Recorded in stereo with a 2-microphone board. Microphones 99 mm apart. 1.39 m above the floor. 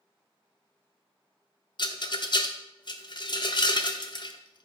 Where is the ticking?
I don't hear ticking.